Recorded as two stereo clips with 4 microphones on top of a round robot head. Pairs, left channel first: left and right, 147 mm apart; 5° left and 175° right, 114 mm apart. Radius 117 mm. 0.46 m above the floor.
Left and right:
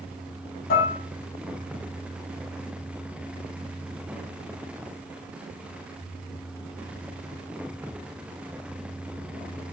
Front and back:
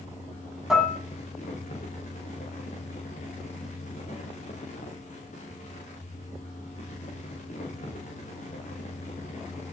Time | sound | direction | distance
0.7 | dishes clattering | 100° left | 3 m